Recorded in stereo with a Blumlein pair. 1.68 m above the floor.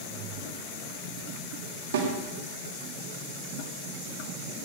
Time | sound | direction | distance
1.9 | a snare drum | 65° right | 4 m